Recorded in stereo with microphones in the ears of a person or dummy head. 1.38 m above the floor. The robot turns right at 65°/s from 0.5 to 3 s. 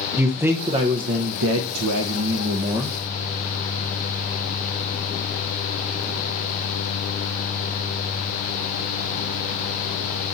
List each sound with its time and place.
0.2 s a man speaking: 165° right, 0.8 m; by 3.0 s 5° right, 0.8 m